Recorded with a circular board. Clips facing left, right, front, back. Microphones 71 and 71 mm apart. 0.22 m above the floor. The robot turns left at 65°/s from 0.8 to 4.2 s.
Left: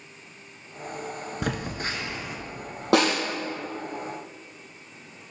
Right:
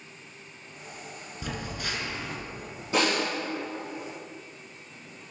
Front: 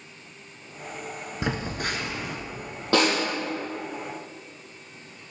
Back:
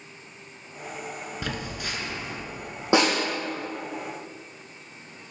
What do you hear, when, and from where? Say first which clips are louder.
1.4 s a phone buzzing: left 4 dB, front 6 dB; 65° left, 0.9 m; by 2.4 s 5° left, 0.9 m
2.9 s a snare drum: left 5 dB, back 1 dB; 105° left, 2.5 m; by 3.2 s 90° left, 2.5 m